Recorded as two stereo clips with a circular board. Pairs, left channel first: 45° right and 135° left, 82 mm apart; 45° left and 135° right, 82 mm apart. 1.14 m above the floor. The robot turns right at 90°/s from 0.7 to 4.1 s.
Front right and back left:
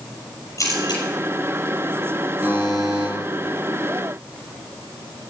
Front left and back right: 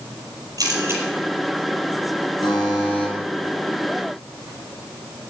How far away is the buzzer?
About 4.5 m.